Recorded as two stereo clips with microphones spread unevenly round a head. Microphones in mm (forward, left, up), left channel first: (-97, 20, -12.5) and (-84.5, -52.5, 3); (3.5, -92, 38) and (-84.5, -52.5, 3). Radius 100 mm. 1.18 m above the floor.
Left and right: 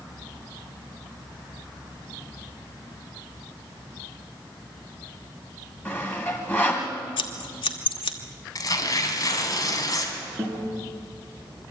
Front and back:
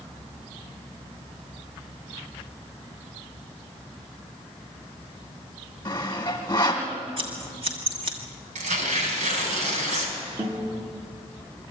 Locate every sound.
5.8 s sawing: 20° left, 1.6 m
7.2 s scissors: 90° left, 1.3 m
8.6 s tearing paper: 140° left, 3.5 m
10.4 s a guitar: 155° right, 6 m